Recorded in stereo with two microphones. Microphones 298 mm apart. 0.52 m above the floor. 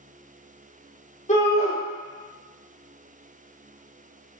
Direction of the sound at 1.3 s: 20° left (ahead or behind).